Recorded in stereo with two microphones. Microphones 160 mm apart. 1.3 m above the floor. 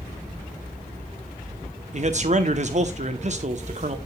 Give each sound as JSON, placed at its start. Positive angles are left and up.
{"t": 1.9, "sound": "a man speaking", "side_deg": -50, "distance_m": 0.8}